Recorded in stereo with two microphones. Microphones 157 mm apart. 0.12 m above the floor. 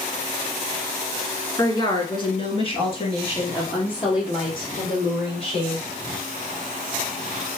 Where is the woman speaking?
25° left (ahead or behind), 1.2 m; by 5.8 s 35° left (ahead or behind), 3.5 m.